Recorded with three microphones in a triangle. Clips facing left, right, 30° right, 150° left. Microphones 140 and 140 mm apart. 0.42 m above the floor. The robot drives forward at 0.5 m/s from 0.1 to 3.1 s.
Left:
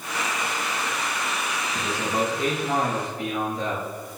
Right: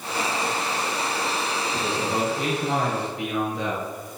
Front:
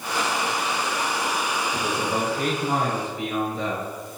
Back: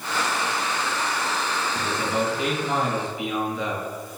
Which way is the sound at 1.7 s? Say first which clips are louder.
Even, back 1 dB; 70° right.